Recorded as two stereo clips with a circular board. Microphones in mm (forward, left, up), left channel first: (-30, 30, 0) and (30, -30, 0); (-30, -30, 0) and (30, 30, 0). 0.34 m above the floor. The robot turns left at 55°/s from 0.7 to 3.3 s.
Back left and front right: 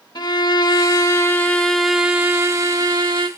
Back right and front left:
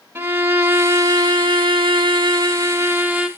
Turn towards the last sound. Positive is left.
turn(degrees=-35)